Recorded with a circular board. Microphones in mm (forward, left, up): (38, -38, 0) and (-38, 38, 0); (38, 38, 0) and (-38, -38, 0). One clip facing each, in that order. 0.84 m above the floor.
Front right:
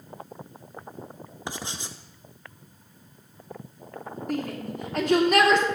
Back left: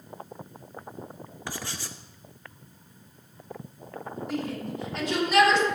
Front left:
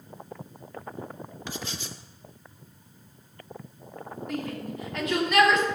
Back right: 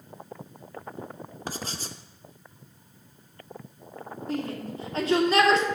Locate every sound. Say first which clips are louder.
1.5 s writing: front right 2 dB, back right 2 dB; 105° right, 0.8 m
4.3 s a shout: front right 2 dB, back right 2 dB; 80° right, 2.5 m